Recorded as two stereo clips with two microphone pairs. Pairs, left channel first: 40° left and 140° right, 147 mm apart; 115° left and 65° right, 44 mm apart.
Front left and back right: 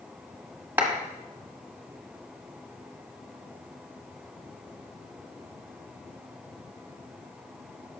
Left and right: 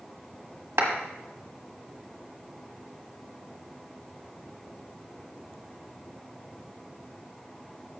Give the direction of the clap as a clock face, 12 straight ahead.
2 o'clock.